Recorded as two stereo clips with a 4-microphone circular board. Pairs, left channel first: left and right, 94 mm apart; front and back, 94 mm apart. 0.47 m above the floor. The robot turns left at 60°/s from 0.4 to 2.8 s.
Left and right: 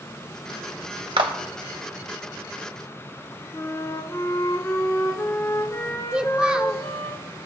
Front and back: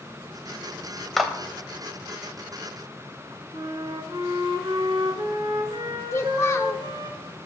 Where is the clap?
90° right, 1.4 m; by 1.3 s 100° right, 1.4 m.